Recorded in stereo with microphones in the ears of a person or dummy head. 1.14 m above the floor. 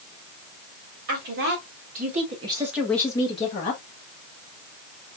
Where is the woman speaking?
60° right (ahead or behind), 3 m; by 3.8 s 50° left (ahead or behind), 1.7 m.